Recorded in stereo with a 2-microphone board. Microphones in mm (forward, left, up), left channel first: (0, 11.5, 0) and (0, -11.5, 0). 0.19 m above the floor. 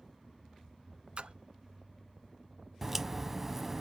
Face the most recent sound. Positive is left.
turn(degrees=-10)  # may be behind; listen again after turning